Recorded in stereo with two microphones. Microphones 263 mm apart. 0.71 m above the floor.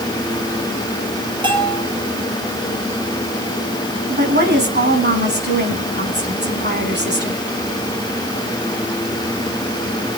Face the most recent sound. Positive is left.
turn(degrees=-40)  # may be behind; listen again after turning